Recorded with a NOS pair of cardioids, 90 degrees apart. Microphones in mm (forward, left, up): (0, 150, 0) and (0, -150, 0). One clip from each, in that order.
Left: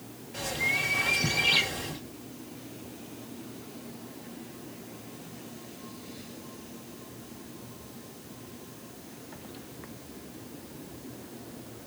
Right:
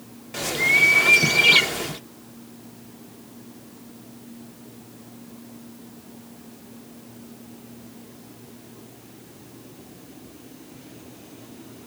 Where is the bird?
60° right, 0.8 m.